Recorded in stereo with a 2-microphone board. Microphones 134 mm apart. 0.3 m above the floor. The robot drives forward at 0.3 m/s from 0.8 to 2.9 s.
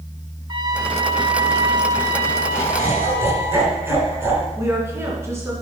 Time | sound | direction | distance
0.5 | a trumpet | 35° right (ahead or behind) | 1.2 m
2.5 | laughter | 15° right (ahead or behind) | 3 m
4.6 | a woman speaking | 20° right (ahead or behind) | 3.5 m